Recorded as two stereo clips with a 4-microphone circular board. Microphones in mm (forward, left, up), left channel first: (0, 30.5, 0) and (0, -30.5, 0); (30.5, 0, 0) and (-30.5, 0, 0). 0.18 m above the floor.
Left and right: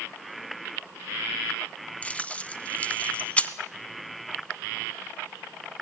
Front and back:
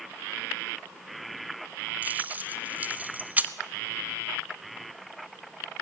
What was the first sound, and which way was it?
Keys jangling, 145° left.